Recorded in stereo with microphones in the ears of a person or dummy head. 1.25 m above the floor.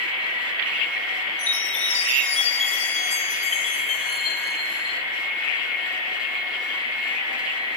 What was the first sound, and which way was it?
A chime, 35° left (ahead or behind).